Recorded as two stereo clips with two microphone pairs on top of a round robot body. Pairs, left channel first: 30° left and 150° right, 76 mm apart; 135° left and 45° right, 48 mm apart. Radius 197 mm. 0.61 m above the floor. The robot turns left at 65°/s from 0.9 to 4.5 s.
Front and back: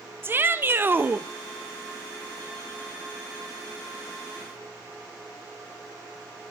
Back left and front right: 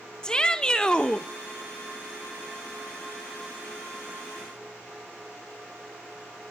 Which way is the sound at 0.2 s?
170° right.